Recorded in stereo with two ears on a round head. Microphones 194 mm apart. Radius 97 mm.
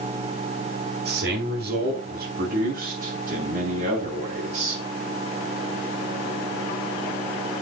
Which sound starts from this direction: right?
A man speaking, at 1.1 s.